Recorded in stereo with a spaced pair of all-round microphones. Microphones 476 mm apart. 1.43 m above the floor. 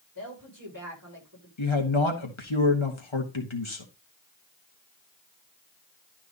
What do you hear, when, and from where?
0.1 s a woman speaking: 40° right (ahead or behind), 6.5 m
1.6 s a man speaking: 75° left (ahead or behind), 1.6 m